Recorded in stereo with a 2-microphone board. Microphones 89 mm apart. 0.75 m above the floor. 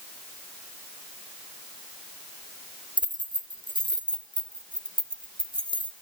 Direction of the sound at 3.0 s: 60° right (ahead or behind).